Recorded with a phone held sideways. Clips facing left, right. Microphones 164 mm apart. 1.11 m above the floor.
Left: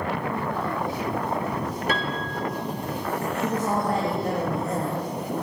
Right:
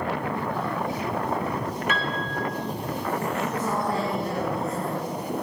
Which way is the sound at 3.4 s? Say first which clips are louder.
Left 2 dB; 40° left (ahead or behind).